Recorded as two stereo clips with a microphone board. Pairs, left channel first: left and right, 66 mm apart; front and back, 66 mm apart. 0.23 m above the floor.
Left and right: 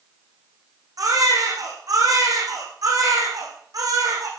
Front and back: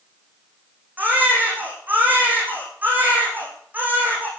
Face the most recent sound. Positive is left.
turn(degrees=-115)